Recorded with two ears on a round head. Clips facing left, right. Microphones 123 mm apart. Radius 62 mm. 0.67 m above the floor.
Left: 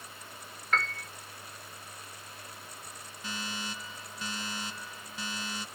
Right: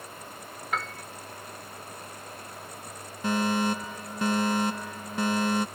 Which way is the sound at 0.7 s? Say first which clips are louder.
Even; 10° right (ahead or behind).